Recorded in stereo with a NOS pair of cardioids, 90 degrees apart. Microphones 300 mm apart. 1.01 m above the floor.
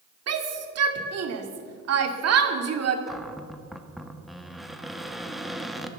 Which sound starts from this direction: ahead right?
A shout, at 0.3 s.